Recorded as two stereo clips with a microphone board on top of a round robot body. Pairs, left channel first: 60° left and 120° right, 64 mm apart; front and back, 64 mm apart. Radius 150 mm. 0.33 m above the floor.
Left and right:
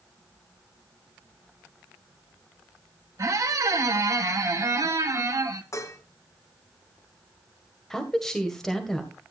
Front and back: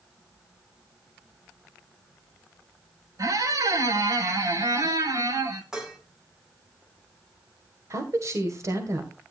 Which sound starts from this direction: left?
Dishes clattering, at 5.7 s.